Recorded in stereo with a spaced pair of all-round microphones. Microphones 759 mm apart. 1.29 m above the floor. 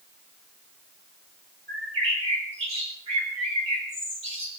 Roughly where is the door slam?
No door slam in this recording.